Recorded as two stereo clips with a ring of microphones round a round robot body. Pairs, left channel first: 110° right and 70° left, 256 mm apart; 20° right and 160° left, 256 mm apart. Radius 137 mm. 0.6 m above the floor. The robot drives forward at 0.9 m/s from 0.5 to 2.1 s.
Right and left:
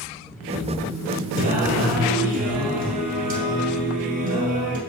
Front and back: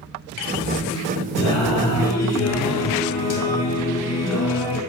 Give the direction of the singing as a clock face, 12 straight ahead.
12 o'clock.